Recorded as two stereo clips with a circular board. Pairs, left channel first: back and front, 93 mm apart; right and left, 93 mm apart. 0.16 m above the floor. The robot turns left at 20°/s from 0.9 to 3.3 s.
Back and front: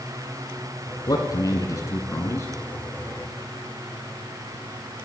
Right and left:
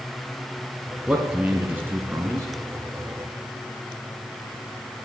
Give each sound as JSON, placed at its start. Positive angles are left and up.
{"t": 1.1, "sound": "a man speaking", "azimuth_deg": 165, "distance_m": 1.9}